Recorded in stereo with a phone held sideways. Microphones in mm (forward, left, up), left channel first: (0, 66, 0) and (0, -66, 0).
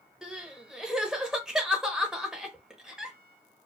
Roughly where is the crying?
Centre.